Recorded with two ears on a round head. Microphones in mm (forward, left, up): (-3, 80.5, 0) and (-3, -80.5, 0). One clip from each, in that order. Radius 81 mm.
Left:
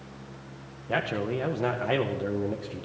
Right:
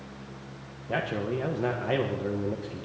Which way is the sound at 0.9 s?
20° left (ahead or behind).